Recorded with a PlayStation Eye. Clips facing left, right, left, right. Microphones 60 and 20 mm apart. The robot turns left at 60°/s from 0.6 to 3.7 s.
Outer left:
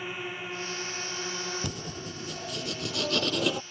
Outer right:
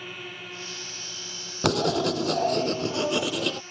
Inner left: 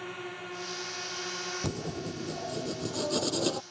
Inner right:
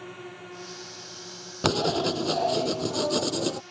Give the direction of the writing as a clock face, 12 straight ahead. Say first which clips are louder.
Outer right 14 dB, inner right 11 dB; 2 o'clock.